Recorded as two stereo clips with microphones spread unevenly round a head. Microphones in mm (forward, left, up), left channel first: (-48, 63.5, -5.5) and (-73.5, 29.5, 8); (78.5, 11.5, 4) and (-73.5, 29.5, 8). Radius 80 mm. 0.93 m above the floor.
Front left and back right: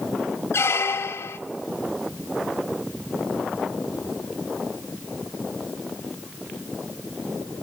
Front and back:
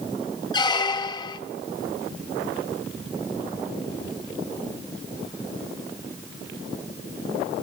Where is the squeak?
55° left, 0.9 m.